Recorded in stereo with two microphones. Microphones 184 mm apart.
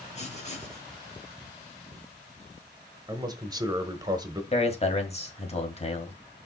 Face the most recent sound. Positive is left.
turn(degrees=35)  # may be behind; listen again after turning